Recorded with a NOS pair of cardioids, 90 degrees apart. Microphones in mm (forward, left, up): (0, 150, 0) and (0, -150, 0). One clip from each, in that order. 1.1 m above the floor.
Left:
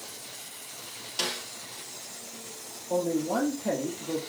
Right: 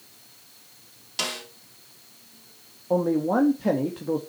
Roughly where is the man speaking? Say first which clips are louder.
Right 5 dB; ahead right.